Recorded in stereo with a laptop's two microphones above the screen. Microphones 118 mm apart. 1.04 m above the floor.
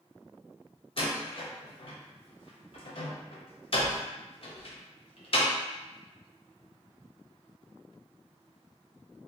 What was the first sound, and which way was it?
A door slam, 50° left (ahead or behind).